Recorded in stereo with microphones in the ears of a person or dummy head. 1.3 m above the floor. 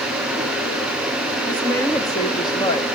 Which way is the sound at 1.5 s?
15° left (ahead or behind).